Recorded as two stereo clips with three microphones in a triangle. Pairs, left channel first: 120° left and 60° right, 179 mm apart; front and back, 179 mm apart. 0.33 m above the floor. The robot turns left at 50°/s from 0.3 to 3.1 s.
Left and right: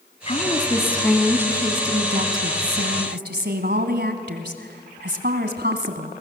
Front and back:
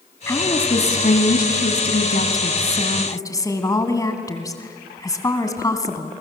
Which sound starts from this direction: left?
A woman speaking, at 0.3 s.